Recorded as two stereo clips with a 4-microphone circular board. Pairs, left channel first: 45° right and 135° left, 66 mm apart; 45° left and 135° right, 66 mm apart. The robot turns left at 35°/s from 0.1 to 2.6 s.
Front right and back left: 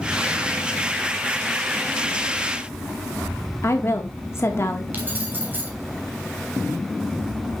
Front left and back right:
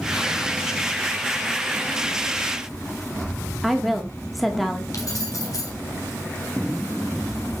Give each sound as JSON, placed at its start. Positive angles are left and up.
{"t": 3.6, "sound": "a woman speaking", "azimuth_deg": -45, "distance_m": 1.2}
{"t": 4.9, "sound": "keys jangling", "azimuth_deg": 75, "distance_m": 2.5}